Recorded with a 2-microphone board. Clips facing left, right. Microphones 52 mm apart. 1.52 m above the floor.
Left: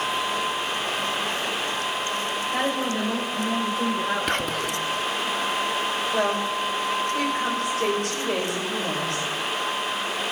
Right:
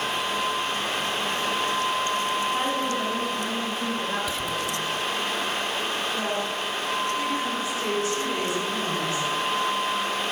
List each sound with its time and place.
2.5 s a woman speaking: 75° left (ahead or behind), 6.5 m; by 5.3 s 70° left (ahead or behind), 5 m
4.3 s whispering: 55° left (ahead or behind), 0.7 m
6.1 s a woman speaking: 75° left (ahead or behind), 6.5 m